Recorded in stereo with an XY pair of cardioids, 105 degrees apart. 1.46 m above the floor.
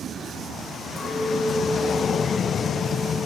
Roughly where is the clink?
Ahead.